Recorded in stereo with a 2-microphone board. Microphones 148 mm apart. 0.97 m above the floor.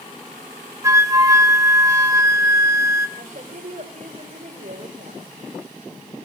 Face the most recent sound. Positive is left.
turn(degrees=-65)  # may be behind; listen again after turning